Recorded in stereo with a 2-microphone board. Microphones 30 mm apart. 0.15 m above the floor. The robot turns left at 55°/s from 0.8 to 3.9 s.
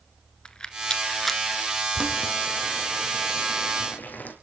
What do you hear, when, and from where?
0.5 s a rattle: 25° left (ahead or behind), 1.0 m; by 1.4 s centre (ahead or behind), 1.0 m
1.9 s boiling: 25° right (ahead or behind), 3.5 m; by 4.3 s 80° left, 3.5 m